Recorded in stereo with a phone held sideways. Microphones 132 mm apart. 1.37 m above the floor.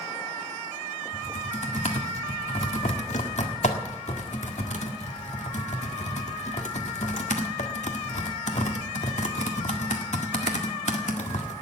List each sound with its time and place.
1.1 s typing on a keyboard: 65° left (ahead or behind), 1.7 m